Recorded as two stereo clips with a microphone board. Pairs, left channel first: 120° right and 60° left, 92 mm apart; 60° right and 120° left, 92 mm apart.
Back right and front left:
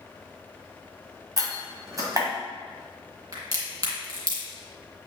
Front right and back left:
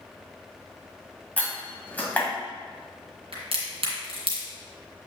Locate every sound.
1.4 s a door slam: 10° left, 1.6 m
3.3 s a crack: 110° left, 2.5 m